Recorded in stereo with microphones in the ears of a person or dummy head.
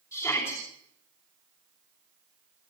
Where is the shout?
15° left (ahead or behind), 5.5 m.